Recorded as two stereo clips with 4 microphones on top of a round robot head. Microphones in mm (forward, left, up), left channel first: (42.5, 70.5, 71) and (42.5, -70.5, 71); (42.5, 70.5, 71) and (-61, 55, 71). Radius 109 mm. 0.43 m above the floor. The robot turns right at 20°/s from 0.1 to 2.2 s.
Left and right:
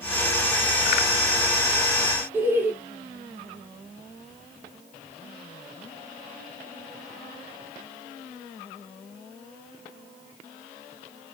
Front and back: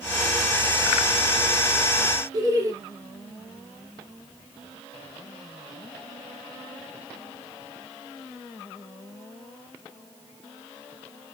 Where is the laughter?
155° right, 0.9 m.